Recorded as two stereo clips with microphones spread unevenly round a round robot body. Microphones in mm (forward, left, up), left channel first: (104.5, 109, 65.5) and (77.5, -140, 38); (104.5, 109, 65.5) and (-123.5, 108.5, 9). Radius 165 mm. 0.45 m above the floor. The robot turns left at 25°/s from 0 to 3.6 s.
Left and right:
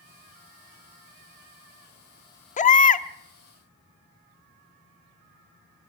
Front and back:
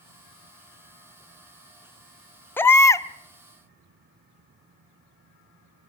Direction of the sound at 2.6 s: 105° left.